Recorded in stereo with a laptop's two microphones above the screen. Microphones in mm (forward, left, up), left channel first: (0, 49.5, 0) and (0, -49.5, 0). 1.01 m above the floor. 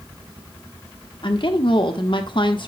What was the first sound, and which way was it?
A woman speaking, 55° left (ahead or behind).